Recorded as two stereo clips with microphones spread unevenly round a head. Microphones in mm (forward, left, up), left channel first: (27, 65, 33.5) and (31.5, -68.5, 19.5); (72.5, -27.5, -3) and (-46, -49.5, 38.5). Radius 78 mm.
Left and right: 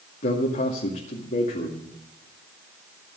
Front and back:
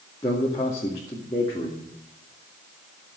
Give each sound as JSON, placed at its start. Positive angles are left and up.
{"t": 0.2, "sound": "a man speaking", "azimuth_deg": 70, "distance_m": 2.5}